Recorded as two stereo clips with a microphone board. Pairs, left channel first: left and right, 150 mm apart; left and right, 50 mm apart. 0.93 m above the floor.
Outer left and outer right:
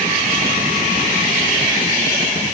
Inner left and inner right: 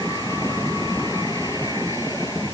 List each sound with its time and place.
Only background noise.